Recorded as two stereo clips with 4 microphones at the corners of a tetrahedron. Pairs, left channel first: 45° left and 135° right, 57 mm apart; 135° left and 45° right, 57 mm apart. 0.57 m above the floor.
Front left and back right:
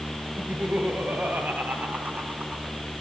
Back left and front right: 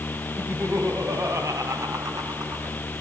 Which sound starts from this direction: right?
Laughter, at 0.4 s.